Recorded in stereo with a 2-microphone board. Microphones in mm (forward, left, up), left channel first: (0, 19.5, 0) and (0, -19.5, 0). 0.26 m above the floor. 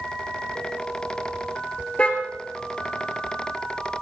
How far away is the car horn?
About 2.5 m.